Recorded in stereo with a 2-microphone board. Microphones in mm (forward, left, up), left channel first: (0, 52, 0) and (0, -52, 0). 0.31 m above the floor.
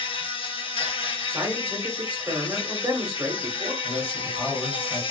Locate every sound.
0.0 s an insect: 70° left (ahead or behind), 0.8 m
1.3 s a man speaking: 25° right (ahead or behind), 0.9 m
3.8 s a man speaking: 15° left (ahead or behind), 1.9 m